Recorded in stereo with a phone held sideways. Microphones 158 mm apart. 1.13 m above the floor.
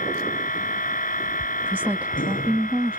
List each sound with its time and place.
0.0 s a machine running: 55° left (ahead or behind)
1.6 s a woman speaking: 10° right (ahead or behind)